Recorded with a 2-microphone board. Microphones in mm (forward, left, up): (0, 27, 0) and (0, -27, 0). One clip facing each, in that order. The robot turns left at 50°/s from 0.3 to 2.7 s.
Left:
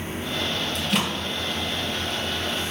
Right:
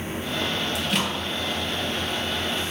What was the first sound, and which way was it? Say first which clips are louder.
A microwave: left 3 dB; 10° right (ahead or behind).